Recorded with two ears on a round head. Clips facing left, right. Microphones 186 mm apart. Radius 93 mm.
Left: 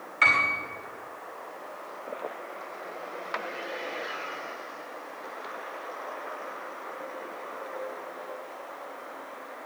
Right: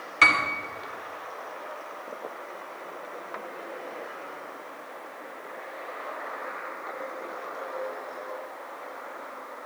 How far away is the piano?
About 2.5 m.